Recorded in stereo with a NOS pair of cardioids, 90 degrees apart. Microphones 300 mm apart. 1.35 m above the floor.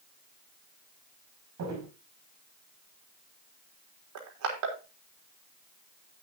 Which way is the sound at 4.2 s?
70° right.